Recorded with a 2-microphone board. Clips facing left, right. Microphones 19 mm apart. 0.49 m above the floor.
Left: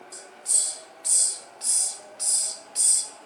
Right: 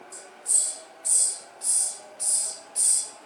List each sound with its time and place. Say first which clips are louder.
0.1 s a hiss: left 1 dB; 40° left (ahead or behind), 0.9 m